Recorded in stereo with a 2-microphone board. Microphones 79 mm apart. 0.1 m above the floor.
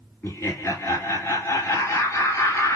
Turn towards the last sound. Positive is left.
turn(degrees=30)  # may be behind; listen again after turning